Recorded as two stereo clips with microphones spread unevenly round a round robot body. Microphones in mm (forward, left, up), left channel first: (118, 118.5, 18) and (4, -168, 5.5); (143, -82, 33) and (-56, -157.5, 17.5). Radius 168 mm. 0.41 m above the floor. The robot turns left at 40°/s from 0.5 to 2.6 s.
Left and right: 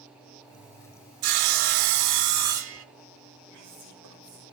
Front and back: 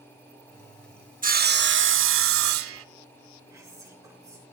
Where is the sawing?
105° right, 0.9 m; by 2.9 s 165° right, 0.9 m.